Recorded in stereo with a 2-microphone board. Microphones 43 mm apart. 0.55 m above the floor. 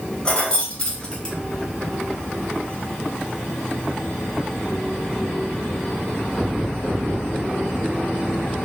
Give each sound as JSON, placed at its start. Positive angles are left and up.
{"t": 0.2, "sound": "keys jangling", "side_deg": 25, "distance_m": 0.7}